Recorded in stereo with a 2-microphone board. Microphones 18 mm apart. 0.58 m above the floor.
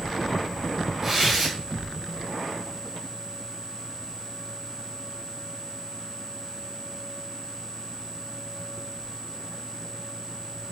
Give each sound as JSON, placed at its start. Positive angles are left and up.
{"t": 1.0, "sound": "tearing paper", "side_deg": -10, "distance_m": 4.5}